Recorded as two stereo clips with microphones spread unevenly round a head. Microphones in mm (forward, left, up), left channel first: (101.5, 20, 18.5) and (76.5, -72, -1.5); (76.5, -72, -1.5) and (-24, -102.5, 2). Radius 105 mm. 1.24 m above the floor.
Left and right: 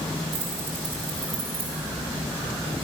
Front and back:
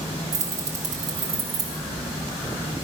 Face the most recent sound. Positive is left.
turn(degrees=175)